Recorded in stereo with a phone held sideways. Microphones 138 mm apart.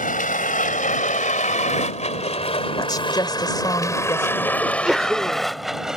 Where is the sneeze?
5° right (ahead or behind).